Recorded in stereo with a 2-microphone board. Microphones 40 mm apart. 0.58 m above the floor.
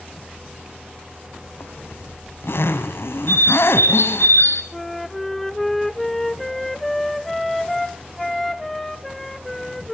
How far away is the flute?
About 1.2 m.